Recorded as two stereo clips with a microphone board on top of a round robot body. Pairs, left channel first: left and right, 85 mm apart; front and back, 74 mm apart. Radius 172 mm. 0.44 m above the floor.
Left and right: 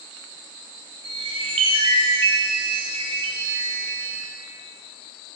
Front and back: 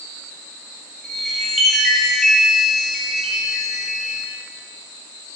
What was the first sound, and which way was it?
A chime, 90° right.